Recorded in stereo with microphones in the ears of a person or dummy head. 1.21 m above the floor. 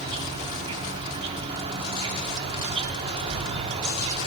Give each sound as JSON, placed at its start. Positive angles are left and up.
{"t": 0.0, "sound": "an insect", "side_deg": -25, "distance_m": 1.1}